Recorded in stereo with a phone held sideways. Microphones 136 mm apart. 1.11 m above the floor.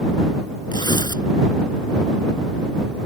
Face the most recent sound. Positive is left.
turn(degrees=30)  # may be behind; listen again after turning